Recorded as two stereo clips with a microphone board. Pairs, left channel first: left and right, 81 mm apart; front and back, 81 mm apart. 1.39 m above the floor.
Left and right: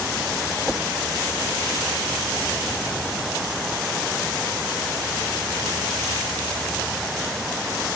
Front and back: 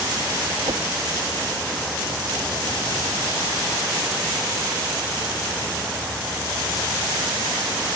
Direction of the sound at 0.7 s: Straight behind.